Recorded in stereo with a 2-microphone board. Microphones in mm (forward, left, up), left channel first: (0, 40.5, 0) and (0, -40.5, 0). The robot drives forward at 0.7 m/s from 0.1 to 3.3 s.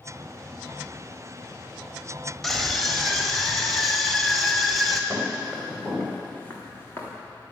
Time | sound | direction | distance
2.4 | a scream | 5° left (ahead or behind) | 1.5 m
5.1 | footsteps | 5° left (ahead or behind) | 5.5 m